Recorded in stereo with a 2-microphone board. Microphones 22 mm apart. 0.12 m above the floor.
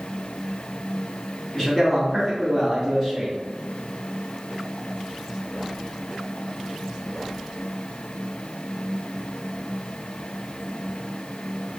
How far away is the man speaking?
About 1.3 m.